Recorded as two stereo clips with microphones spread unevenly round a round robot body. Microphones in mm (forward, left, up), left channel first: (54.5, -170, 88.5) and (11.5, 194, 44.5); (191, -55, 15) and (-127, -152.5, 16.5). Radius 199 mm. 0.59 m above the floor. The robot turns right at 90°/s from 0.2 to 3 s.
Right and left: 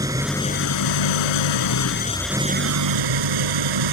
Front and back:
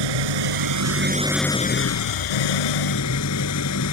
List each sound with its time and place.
0.0 s an engine running: straight behind; by 3.9 s 70° left